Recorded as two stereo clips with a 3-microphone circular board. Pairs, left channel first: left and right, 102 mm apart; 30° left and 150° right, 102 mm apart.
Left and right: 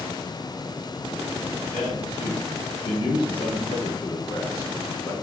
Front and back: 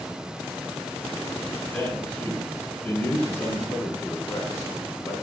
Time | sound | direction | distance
1.7 | a man speaking | 105° left | 2.5 m